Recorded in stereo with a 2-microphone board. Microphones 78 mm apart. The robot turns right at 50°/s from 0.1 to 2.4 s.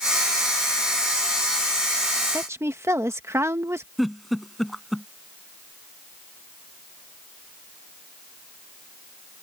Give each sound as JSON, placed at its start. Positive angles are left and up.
{"t": 2.3, "sound": "a woman speaking", "side_deg": -35}
{"t": 4.0, "sound": "a giggle", "side_deg": 0}